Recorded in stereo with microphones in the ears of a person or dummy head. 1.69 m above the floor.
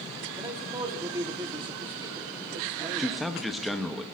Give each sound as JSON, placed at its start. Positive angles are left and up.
{"t": 0.4, "sound": "a man speaking", "side_deg": -20, "distance_m": 1.3}
{"t": 3.0, "sound": "a man speaking", "side_deg": 0, "distance_m": 0.8}